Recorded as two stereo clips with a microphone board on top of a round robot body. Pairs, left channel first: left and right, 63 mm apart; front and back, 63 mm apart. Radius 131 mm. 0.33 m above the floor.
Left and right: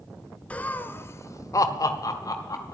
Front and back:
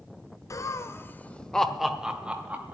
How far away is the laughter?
About 1.6 m.